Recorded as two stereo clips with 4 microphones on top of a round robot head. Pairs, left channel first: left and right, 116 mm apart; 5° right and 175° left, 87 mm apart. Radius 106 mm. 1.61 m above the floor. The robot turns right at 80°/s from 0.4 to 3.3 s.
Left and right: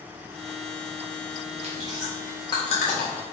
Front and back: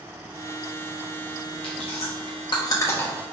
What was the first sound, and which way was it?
Chewing, 45° right.